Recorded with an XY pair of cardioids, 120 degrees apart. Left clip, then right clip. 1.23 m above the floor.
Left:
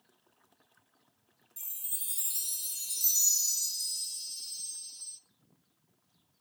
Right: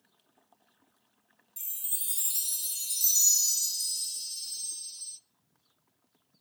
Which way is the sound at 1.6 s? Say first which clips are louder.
Right 3 dB; 25° right.